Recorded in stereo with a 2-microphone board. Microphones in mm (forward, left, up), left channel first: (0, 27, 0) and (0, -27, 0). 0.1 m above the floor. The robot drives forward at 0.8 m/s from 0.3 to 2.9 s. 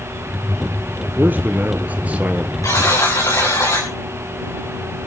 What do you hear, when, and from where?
1.2 s a man speaking: 35° right (ahead or behind), 1.2 m; by 2.5 s 25° right (ahead or behind), 1.7 m
2.6 s a buzzer: 80° left, 7.5 m